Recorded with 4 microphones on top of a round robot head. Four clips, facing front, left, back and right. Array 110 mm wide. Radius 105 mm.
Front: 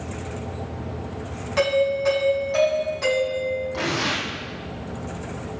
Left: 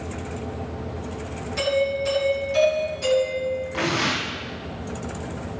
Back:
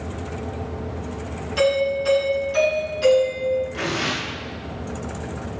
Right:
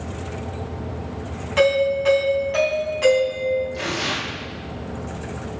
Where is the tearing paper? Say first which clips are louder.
Left 2 dB, even; 60° left, 4.5 m.